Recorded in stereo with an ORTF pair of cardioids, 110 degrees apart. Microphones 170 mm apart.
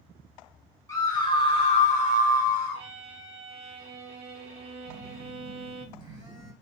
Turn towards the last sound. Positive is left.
turn(degrees=-25)